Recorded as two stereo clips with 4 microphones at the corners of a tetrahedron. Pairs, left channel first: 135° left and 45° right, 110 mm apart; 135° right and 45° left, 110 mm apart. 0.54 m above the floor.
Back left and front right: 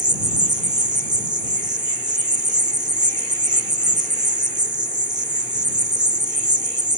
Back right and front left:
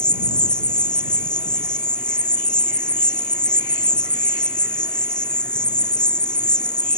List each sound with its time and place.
0.0 s an insect: 60° right